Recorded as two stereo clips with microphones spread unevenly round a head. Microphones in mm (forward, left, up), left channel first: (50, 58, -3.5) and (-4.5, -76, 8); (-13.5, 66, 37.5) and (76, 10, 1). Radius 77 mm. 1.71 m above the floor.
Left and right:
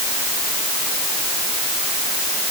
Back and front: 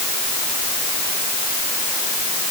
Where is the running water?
No running water in this recording.